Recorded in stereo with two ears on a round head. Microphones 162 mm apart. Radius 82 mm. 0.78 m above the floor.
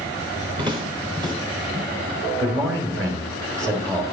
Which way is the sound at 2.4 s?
20° right (ahead or behind).